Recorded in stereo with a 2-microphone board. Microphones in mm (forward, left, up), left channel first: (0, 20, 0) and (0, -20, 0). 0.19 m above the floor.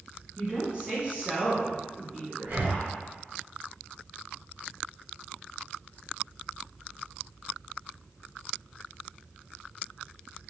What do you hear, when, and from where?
0.4 s a woman speaking: 25° right (ahead or behind), 2.0 m
2.4 s breathing: 35° right (ahead or behind), 0.8 m